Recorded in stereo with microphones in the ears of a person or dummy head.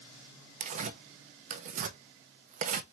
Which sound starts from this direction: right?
Tearing paper, at 0.6 s.